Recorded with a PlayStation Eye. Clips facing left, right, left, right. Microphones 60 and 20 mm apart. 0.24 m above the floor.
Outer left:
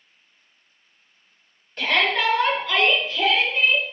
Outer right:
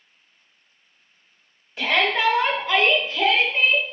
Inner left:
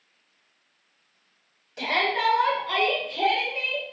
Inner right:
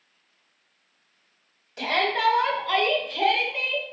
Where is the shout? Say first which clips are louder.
Even, even; 5° right (ahead or behind), 1.0 m; by 3.9 s 40° right (ahead or behind), 1.7 m.